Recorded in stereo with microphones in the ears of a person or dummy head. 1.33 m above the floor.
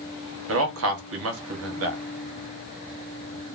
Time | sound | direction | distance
0.5 | a man speaking | 65° right (ahead or behind) | 1.1 m